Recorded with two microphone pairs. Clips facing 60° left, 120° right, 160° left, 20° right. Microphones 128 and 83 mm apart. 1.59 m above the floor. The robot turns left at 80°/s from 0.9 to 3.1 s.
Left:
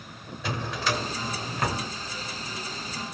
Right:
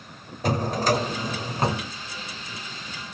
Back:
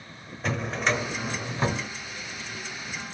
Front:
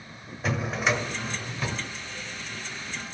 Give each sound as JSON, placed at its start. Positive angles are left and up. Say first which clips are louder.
{"t": 0.4, "sound": "a drawer", "louder": "right 7 dB, even", "azimuth_deg": -110, "distance_m": 1.7}